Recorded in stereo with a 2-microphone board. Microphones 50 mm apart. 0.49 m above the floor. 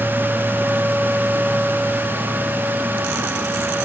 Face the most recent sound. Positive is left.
No sound to turn to.